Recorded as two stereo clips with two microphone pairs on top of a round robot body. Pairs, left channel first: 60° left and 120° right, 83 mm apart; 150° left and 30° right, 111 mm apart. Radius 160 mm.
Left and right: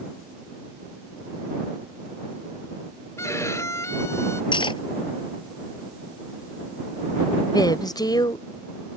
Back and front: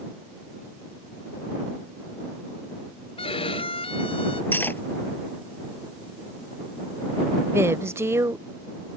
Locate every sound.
3.2 s a violin: 115° left
4.5 s cutlery clinking: 75° left
7.4 s a woman speaking: 30° left